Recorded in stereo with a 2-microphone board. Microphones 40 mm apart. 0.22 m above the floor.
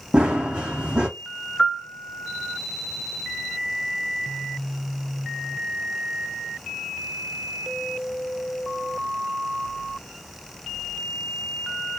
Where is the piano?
25° left (ahead or behind), 0.6 m.